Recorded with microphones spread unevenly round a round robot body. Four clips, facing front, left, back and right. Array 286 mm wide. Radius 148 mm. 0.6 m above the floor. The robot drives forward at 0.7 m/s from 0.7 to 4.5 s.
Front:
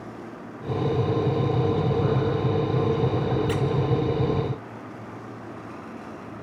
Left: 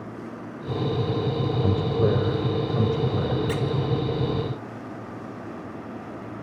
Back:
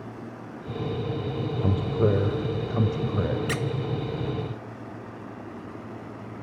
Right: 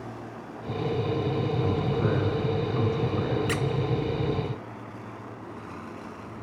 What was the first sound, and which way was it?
A man speaking, 130° left.